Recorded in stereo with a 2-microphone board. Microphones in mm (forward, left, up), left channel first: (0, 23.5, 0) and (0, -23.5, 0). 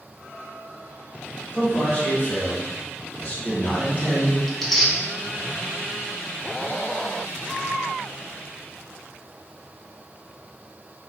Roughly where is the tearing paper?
Centre.